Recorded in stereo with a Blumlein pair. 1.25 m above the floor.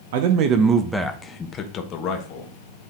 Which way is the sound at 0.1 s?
55° right.